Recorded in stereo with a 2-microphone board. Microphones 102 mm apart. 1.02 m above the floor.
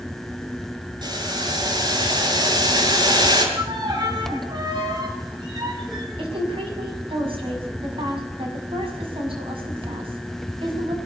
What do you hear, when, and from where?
1.0 s boiling: 45° right (ahead or behind), 6 m
3.5 s a violin: 45° right (ahead or behind), 5.5 m
6.2 s a woman speaking: 60° right (ahead or behind), 6.5 m